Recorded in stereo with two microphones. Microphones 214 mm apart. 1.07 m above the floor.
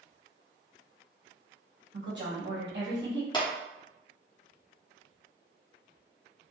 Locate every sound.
1.9 s a woman speaking: 60° right (ahead or behind), 1.6 m
3.3 s a clap: 20° left (ahead or behind), 1.0 m